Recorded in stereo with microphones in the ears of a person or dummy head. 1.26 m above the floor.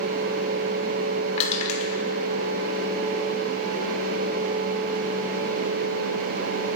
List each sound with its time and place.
1.4 s crushing: 40° left (ahead or behind), 2.5 m